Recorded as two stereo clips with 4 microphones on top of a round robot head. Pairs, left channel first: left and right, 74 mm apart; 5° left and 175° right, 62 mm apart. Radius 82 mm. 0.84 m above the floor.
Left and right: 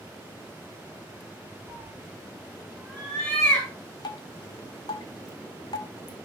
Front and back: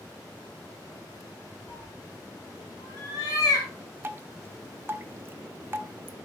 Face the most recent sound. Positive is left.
turn(degrees=125)